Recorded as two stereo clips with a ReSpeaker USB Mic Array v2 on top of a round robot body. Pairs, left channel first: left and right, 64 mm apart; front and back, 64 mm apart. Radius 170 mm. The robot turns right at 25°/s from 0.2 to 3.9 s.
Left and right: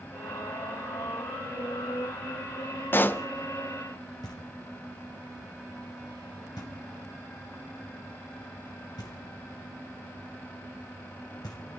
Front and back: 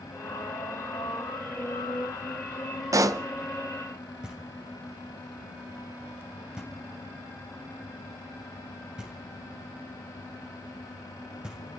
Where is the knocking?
100° left, 3 m.